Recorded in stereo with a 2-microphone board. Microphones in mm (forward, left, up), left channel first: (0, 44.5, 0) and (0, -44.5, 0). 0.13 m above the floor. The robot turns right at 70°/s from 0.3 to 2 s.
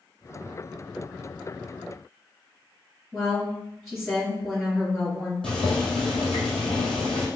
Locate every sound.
3.1 s a woman speaking: 5° right (ahead or behind), 1.9 m
5.4 s boiling: 5° left (ahead or behind), 1.4 m